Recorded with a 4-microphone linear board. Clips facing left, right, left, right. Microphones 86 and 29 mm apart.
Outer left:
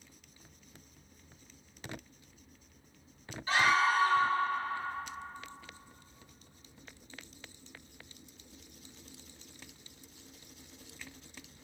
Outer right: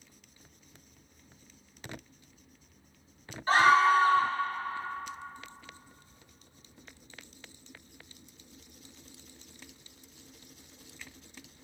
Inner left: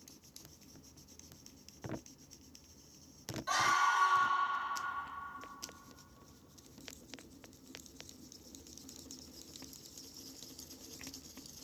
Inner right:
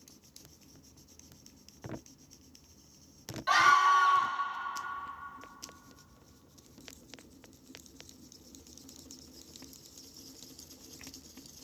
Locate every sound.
3.5 s a scream: 40° right (ahead or behind), 1.2 m